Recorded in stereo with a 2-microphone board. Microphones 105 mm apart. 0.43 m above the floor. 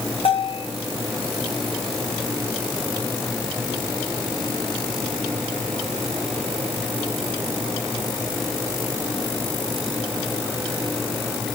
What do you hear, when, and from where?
0.2 s a bell: 65° left (ahead or behind), 3 m